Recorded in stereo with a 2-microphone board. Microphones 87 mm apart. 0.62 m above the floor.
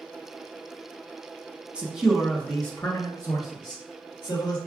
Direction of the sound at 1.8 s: 15° right (ahead or behind).